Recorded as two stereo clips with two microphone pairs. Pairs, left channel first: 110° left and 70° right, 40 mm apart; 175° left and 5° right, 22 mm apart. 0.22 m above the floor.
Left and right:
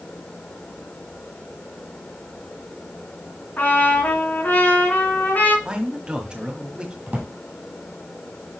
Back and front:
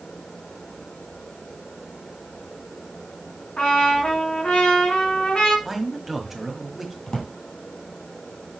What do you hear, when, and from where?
3.6 s a trumpet: 145° left, 2.5 m
5.7 s a man speaking: 80° right, 1.6 m
7.1 s a drawer: 125° right, 3 m